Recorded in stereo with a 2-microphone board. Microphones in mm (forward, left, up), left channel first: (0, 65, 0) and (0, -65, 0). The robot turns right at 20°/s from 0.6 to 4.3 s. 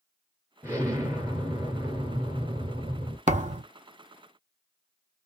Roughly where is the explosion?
Behind right.